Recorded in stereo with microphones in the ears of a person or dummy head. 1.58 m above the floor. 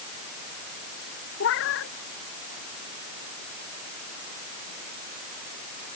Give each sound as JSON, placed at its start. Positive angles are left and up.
{"t": 1.4, "sound": "a cat meowing", "side_deg": 70}